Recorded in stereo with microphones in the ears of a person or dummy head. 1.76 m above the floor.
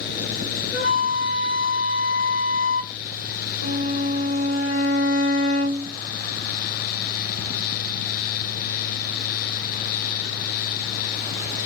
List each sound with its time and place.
0.7 s a flute: 60° left (ahead or behind), 2.5 m
3.6 s a violin: 65° left (ahead or behind), 1.9 m